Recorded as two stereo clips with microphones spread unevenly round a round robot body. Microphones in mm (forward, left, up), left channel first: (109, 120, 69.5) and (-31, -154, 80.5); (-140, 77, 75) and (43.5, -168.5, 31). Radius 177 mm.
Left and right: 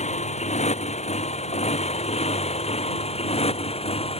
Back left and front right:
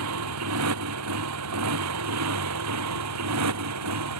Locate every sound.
0.0 s a motorcycle: 5° right; by 4.2 s 10° right